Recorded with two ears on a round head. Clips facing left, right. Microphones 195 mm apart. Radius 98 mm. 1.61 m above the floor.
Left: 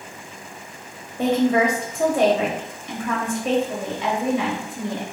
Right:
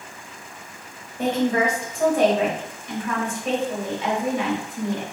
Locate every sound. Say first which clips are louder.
1.2 s a woman speaking: left 3 dB; 65° left (ahead or behind), 1.2 m